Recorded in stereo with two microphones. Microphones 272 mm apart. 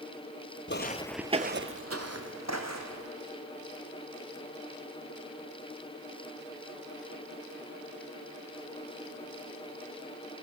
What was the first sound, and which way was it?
Footsteps, 45° left (ahead or behind).